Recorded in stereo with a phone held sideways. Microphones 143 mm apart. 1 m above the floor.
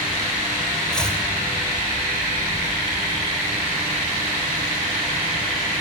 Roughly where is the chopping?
Centre.